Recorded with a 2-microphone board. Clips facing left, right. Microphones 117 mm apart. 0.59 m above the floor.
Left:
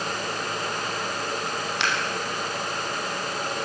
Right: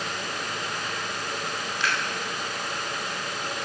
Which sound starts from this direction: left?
Scissors, at 1.8 s.